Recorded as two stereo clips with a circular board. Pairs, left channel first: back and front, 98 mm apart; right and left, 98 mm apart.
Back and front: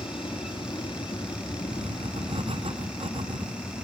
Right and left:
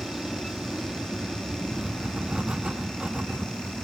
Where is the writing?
10° left.